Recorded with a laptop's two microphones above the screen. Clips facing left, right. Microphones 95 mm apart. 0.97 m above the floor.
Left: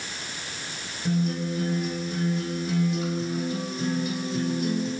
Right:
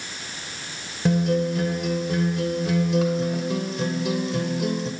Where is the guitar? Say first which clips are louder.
Right 6 dB; 75° right (ahead or behind), 3.5 m.